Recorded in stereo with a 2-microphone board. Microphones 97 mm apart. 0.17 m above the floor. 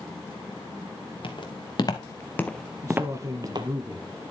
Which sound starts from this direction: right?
A man speaking, at 2.8 s.